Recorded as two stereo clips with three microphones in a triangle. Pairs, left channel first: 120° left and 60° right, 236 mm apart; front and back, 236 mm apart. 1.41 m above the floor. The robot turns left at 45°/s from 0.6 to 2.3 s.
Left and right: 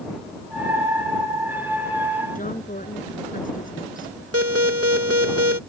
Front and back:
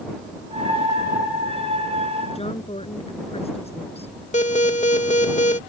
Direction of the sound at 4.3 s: 60° right.